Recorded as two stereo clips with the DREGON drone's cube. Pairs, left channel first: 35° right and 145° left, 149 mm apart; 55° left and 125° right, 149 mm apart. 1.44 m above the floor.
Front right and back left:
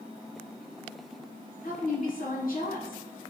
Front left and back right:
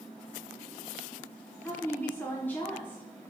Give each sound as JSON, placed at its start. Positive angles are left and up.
{"t": 1.6, "sound": "a woman speaking", "azimuth_deg": -20, "distance_m": 1.1}